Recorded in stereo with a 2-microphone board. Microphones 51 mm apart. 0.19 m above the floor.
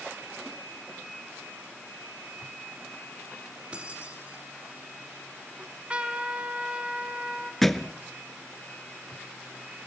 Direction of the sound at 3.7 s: 25° right (ahead or behind).